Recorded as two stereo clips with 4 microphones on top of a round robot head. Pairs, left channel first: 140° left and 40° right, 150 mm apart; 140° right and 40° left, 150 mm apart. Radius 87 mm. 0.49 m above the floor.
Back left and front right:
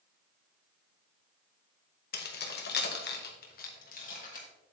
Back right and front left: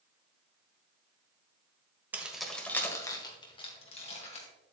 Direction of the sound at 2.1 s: 120° left.